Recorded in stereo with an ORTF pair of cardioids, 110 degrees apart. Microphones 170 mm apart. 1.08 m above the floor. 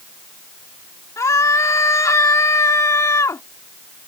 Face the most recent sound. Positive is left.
turn(degrees=20)